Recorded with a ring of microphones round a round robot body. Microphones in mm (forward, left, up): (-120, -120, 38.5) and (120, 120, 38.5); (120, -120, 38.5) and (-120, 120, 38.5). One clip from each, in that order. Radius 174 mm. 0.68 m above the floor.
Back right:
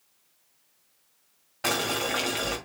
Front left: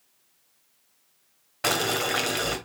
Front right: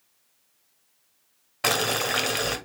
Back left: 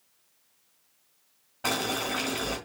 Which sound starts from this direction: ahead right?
Boiling, at 1.6 s.